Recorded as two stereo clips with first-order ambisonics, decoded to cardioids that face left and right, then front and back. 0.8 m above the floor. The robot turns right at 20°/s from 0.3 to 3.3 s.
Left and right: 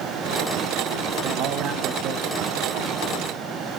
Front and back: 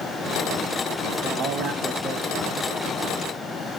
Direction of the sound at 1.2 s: 140° right.